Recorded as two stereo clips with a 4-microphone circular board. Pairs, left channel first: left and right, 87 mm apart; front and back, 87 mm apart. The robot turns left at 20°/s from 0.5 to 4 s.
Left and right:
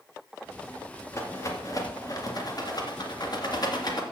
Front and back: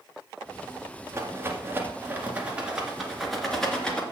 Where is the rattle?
135° left, 1.9 m; by 4.0 s 75° left, 1.9 m.